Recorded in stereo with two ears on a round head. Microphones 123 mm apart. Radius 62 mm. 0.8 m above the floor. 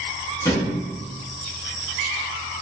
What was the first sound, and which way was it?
A thud, 20° left (ahead or behind).